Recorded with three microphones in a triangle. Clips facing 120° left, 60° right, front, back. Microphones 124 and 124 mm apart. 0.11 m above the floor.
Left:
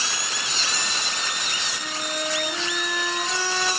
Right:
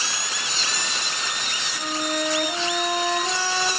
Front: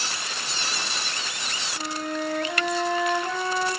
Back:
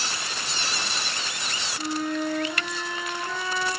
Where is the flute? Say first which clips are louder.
Right 7 dB, back 3 dB; 35° right, 5 m.